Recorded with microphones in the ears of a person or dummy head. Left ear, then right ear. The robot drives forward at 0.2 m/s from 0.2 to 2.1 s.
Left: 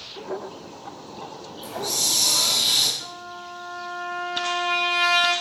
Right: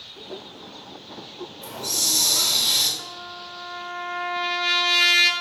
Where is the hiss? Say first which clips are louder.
Even; 10° left (ahead or behind), 1.2 m; by 2.9 s 5° left (ahead or behind), 1.3 m.